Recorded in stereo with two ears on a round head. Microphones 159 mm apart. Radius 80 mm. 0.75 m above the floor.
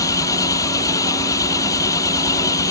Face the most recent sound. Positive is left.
turn(degrees=20)  # may be behind; listen again after turning